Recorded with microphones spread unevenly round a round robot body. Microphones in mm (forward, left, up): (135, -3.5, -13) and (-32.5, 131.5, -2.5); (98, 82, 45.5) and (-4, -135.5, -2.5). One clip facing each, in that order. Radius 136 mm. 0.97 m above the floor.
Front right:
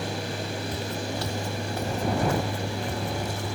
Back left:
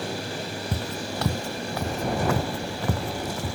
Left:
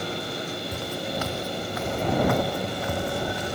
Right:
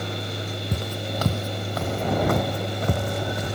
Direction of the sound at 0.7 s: 175° right.